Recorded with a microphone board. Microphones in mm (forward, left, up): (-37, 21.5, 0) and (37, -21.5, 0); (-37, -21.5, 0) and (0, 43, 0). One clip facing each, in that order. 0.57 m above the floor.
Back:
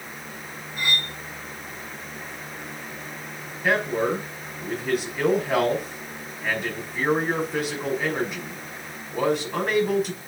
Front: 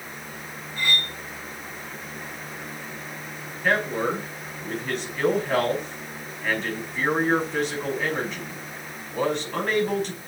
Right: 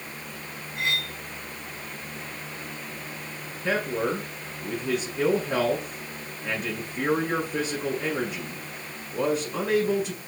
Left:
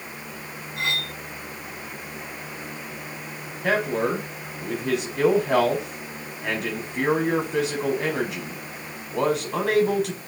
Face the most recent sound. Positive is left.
turn(degrees=65)